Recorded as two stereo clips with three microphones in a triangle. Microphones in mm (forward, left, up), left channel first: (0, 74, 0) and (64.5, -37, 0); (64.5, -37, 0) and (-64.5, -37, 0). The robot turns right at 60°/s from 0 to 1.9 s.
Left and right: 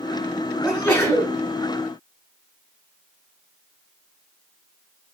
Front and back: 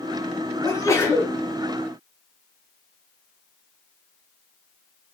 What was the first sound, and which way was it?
A sneeze, 30° left.